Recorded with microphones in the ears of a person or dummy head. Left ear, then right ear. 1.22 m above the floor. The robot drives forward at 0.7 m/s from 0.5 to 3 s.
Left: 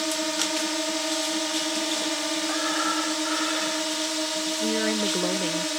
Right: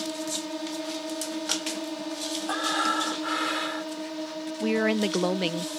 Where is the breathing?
15° right (ahead or behind).